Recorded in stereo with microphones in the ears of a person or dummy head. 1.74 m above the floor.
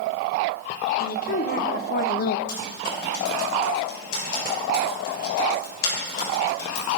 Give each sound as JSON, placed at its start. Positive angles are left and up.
{"t": 1.0, "sound": "a woman speaking", "side_deg": 45, "distance_m": 2.5}
{"t": 2.5, "sound": "typing on a keyboard", "side_deg": 55, "distance_m": 8.5}